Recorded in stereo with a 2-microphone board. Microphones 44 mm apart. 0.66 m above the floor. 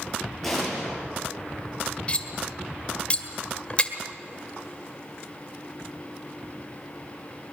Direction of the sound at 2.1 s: 25° left (ahead or behind).